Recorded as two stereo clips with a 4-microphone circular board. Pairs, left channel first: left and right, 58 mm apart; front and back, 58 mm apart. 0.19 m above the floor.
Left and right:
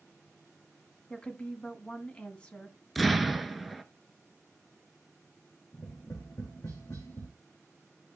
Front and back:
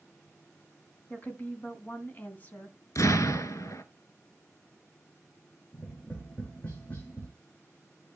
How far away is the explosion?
About 0.9 m.